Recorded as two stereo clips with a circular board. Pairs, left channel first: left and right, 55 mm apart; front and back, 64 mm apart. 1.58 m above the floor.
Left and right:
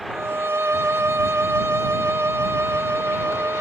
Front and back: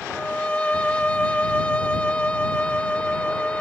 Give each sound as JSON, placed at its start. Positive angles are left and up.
{"t": 0.1, "sound": "a violin", "azimuth_deg": -65}